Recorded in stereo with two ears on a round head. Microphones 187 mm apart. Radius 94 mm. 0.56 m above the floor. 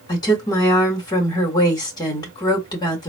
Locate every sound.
0.1 s a woman speaking: 20° left (ahead or behind), 1.3 m